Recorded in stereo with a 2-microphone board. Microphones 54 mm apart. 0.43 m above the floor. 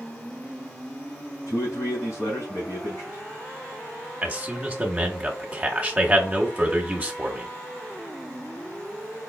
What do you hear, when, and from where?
1.5 s a man speaking: 55° left (ahead or behind), 2.5 m
4.2 s a man speaking: 25° right (ahead or behind), 1.3 m